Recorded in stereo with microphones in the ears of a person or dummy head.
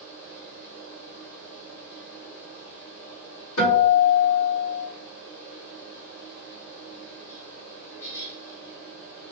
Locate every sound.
0.0 s a fan: 65° left (ahead or behind), 1.7 m
3.6 s a guitar: 80° left, 1.7 m